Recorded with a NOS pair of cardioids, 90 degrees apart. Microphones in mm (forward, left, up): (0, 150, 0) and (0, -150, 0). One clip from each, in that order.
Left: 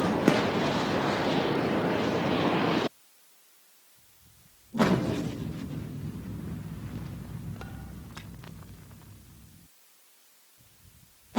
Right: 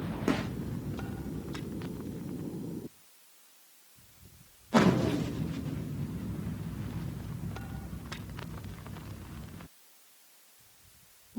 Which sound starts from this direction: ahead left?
A gunshot, at 0.3 s.